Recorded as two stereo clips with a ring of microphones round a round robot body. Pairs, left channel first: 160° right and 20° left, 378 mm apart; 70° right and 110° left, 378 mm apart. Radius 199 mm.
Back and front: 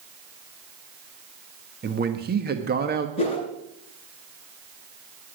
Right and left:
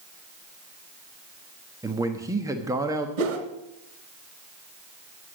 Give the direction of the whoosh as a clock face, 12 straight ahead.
8 o'clock.